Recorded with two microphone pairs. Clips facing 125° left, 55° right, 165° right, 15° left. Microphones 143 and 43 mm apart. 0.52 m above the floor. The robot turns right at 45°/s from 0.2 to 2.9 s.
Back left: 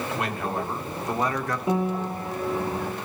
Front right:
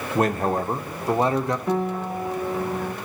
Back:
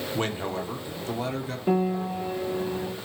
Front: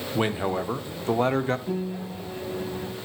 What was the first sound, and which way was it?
A man speaking, 55° right.